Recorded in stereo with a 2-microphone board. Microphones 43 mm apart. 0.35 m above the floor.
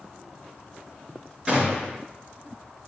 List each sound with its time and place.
1.5 s a gunshot: 15° right (ahead or behind), 4 m